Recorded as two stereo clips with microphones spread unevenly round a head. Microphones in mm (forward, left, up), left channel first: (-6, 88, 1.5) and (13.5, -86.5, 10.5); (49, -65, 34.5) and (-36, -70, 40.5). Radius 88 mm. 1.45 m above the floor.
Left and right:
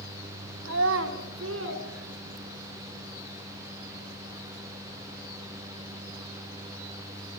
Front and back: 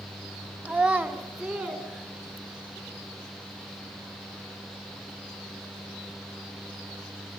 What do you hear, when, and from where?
0.7 s a child speaking: 105° right, 2.5 m